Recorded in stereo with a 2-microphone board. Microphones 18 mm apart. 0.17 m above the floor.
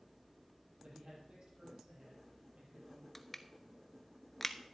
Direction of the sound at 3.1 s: 5° left (ahead or behind).